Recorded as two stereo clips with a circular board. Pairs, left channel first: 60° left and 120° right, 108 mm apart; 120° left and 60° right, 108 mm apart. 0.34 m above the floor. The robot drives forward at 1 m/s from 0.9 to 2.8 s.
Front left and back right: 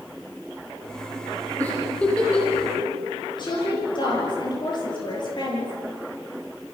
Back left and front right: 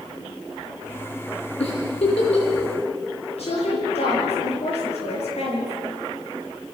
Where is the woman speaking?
105° left, 9 m.